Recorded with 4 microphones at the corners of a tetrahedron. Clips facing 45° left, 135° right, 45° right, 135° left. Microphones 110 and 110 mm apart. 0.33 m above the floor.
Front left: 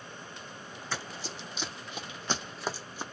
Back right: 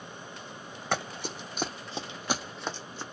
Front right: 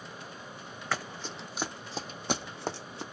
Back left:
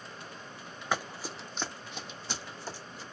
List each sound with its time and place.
0.9 s running footsteps: 155° right, 0.8 m; by 3.0 s 30° right, 0.8 m